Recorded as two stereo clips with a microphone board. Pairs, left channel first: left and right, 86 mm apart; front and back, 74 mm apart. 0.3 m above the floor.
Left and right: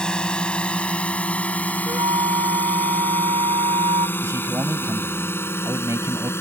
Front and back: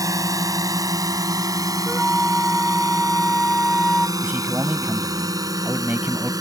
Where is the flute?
90° right.